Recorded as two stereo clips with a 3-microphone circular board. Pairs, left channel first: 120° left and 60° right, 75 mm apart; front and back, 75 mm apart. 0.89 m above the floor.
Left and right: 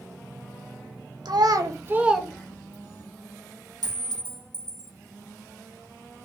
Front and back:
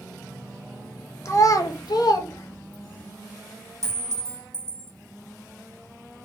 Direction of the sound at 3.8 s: 45° right.